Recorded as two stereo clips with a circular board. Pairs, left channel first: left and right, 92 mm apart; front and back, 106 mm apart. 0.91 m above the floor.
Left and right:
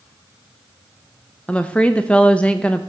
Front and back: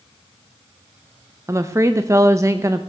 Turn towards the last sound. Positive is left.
turn(degrees=155)